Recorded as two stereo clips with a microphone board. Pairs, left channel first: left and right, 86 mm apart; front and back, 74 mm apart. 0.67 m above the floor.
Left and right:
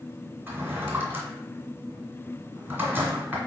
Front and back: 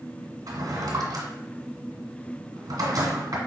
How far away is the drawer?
About 1.6 m.